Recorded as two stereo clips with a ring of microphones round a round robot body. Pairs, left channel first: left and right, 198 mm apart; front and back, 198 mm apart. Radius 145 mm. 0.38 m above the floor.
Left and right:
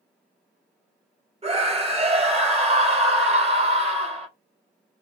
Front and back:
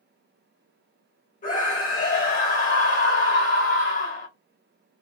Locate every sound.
1.4 s a scream: 40° right, 1.7 m